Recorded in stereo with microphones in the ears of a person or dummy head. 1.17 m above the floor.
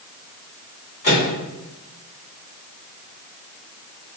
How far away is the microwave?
About 1.9 m.